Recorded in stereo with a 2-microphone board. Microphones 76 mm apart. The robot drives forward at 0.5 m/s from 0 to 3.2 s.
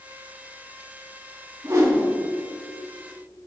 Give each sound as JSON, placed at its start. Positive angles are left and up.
{"t": 1.6, "sound": "a whoosh", "side_deg": -50, "distance_m": 1.8}